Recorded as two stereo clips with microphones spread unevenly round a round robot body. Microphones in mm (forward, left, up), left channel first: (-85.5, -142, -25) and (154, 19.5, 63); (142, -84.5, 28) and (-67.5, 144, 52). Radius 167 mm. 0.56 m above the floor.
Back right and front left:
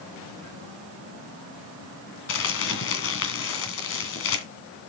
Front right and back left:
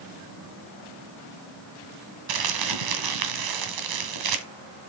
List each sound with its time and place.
2.3 s crumpling: 160° left, 2 m